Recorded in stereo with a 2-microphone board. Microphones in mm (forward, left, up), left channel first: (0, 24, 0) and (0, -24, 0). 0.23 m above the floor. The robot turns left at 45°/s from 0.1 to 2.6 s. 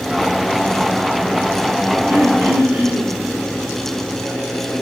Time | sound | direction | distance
2.1 | throat clearing | 70° right (ahead or behind) | 3.5 m